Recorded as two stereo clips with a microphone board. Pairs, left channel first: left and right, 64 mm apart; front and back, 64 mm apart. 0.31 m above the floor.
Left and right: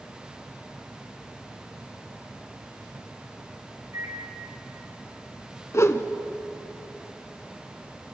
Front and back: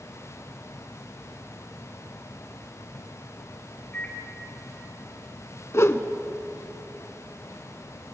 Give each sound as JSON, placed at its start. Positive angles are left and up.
{"t": 3.9, "sound": "a microwave", "azimuth_deg": -60, "distance_m": 5.0}
{"t": 5.7, "sound": "a whoosh", "azimuth_deg": 45, "distance_m": 0.8}